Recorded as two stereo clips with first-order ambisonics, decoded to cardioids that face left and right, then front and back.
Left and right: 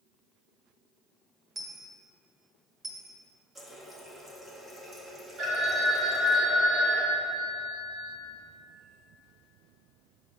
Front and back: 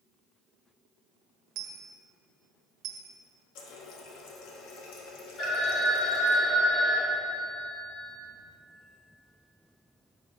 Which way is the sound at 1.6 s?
160° right.